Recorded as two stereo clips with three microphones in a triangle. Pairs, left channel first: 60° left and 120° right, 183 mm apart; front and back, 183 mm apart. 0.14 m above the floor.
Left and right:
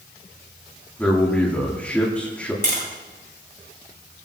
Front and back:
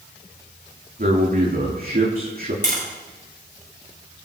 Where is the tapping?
150° right, 7 m.